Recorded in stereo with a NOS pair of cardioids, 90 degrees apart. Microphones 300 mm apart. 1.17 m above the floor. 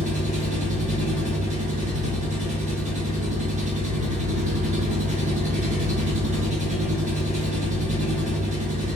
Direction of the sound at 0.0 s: 25° right.